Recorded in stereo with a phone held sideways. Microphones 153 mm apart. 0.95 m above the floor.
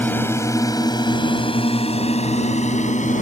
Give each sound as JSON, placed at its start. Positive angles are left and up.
{"t": 0.0, "sound": "a drone", "side_deg": 15}